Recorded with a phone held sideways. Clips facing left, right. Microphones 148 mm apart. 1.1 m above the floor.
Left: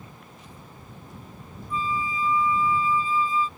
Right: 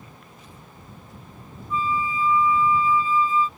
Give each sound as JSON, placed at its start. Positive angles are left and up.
{"t": 1.7, "sound": "a flute", "side_deg": 35}